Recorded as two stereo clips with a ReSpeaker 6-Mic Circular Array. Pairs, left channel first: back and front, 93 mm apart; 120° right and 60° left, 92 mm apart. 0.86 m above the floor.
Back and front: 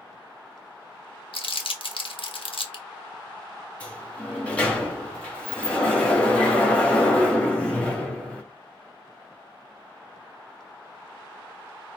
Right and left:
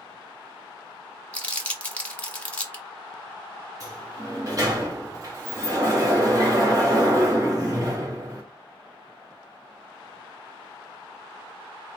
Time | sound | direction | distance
1.3 | crumpling | 165° left | 0.9 m
3.8 | a sliding door | 105° left | 1.7 m